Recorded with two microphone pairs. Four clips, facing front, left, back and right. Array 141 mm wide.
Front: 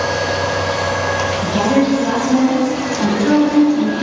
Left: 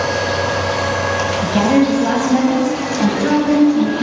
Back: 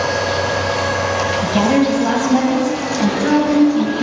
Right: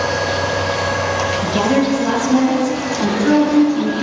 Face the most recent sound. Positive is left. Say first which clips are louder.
# left 3 dB, even
turn(degrees=140)